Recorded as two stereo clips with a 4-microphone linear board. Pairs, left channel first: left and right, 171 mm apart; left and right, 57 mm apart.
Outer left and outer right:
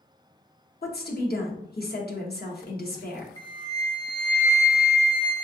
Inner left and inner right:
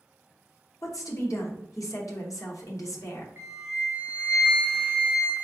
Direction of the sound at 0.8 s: 65° left (ahead or behind).